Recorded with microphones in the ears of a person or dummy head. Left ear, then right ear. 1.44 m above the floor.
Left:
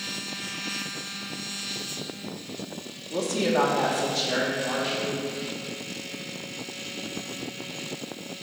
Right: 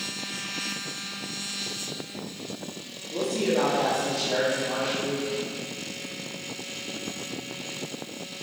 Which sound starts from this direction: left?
A woman speaking, at 3.1 s.